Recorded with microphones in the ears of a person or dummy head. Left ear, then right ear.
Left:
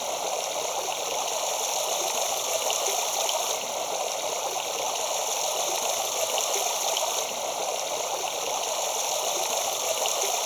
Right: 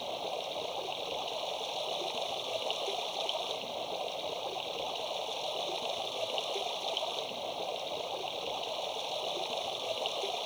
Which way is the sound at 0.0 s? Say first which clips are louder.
Left 8 dB; 55° left (ahead or behind).